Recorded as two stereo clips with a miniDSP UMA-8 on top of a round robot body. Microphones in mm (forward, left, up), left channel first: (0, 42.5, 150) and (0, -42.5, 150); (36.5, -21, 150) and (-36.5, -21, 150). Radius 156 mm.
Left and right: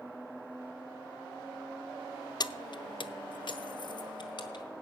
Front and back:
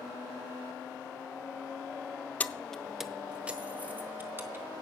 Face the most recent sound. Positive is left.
turn(degrees=120)